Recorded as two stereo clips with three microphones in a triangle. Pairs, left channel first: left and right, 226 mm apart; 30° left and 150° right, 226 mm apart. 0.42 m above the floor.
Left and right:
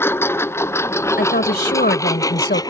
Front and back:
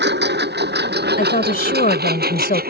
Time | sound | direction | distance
0.0 | a lawn mower | 170° left | ?
1.2 | a woman speaking | 65° left | ?